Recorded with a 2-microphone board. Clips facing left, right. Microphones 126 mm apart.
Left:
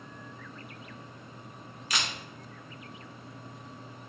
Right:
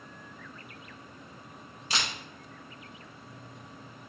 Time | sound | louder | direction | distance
1.9 | a camera shutter | even | 30° right (ahead or behind) | 0.7 m